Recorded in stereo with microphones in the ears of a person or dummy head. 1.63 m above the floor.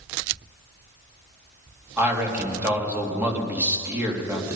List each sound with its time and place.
2.0 s a man speaking: 10° right (ahead or behind), 2.5 m